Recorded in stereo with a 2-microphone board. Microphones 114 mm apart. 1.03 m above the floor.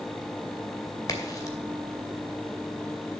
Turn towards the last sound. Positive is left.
turn(degrees=30)  # may be behind; listen again after turning